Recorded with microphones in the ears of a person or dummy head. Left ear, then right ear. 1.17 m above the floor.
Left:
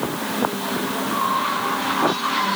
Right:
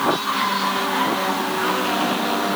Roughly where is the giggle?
I don't hear a giggle.